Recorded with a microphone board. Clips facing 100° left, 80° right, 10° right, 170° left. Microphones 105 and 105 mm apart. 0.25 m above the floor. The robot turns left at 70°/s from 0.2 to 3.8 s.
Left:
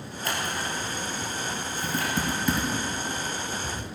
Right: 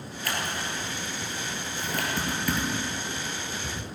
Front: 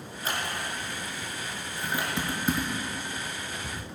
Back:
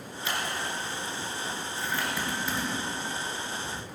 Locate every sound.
0.2 s scissors: 35° left, 3 m; by 2.1 s 90° right, 3 m
1.8 s typing on a keyboard: 80° left, 2.5 m; by 3.9 s 60° right, 2.5 m